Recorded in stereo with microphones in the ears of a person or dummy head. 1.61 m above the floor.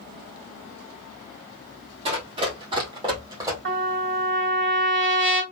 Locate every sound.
2.0 s running footsteps: 35° right (ahead or behind), 2.5 m; by 3.5 s 20° right (ahead or behind), 3 m
3.6 s a trumpet: 55° right (ahead or behind), 2.5 m